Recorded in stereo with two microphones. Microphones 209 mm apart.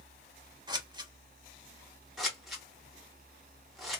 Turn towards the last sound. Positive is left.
turn(degrees=0)  # may be behind; listen again after turning